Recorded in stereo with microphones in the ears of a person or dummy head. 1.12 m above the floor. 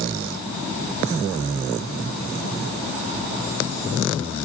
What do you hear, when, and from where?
Only background noise.